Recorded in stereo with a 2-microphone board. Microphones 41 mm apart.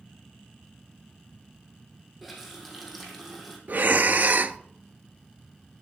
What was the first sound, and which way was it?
A running tap, centre (ahead or behind).